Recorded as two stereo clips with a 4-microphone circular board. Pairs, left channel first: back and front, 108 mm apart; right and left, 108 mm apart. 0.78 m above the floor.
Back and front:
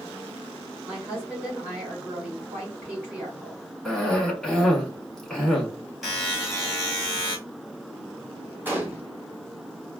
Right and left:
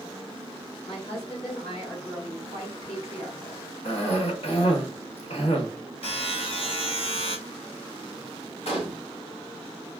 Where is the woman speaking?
70° right, 2.5 m.